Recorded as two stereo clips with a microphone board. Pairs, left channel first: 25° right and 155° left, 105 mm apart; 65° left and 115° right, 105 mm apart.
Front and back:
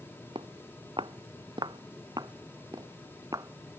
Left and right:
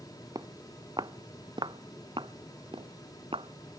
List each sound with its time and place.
0.3 s footsteps: 165° right; by 3.8 s 140° right